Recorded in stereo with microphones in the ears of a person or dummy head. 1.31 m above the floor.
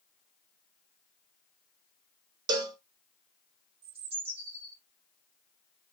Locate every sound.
2.5 s a cowbell: 20° right (ahead or behind), 0.5 m
3.8 s a bird: 30° right (ahead or behind), 1.1 m